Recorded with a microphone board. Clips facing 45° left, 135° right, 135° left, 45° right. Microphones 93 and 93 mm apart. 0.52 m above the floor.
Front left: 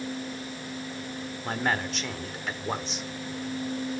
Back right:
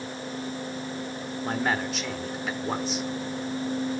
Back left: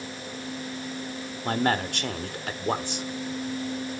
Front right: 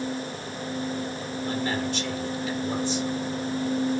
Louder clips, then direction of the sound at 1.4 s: Back right 1 dB, back left 3 dB; 135° left.